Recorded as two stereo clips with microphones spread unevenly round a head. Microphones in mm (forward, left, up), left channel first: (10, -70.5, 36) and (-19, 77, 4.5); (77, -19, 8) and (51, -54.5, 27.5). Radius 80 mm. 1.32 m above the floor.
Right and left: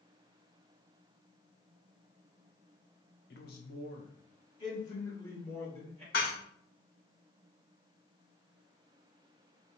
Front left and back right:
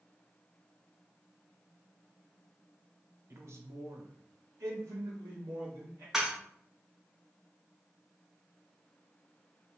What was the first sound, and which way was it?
A man speaking, 100° right.